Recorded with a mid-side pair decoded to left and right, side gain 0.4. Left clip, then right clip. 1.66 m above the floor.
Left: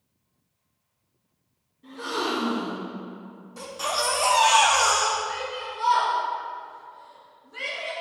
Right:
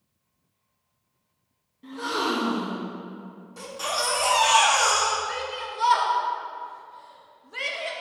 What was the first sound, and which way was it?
A gasp, 60° right.